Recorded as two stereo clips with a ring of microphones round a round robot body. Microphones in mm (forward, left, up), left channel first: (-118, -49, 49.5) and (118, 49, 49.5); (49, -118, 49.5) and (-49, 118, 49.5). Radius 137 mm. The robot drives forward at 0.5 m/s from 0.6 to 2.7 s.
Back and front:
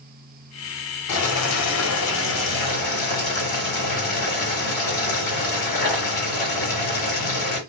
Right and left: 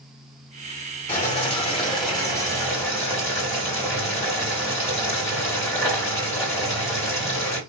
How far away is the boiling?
About 1.4 m.